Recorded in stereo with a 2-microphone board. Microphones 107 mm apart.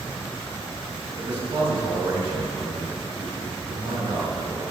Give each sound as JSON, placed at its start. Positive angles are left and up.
{"t": 1.2, "sound": "a man speaking", "side_deg": -50, "distance_m": 3.0}